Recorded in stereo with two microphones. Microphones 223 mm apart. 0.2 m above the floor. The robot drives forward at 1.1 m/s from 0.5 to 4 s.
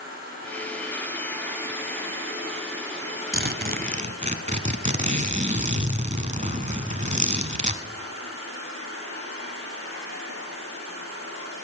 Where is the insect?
40° right (ahead or behind), 5.5 m; by 11.6 s 75° right (ahead or behind), 4 m.